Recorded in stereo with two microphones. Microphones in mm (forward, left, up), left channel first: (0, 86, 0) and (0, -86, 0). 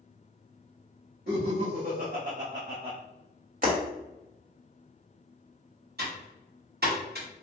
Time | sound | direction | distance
1.3 | laughter | 65° right (ahead or behind) | 1.6 m
3.6 | breaking glass | 50° right (ahead or behind) | 1.9 m
6.0 | typing on a keyboard | 70° right (ahead or behind) | 1.7 m